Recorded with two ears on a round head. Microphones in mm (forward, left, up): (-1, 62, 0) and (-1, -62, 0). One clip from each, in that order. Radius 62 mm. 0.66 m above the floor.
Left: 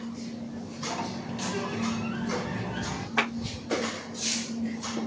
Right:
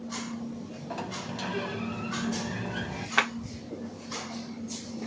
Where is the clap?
30° right (ahead or behind), 1.2 m.